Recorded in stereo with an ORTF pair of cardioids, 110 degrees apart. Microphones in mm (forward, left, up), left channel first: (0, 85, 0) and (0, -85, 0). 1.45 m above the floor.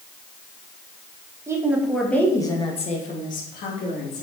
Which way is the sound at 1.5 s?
15° right.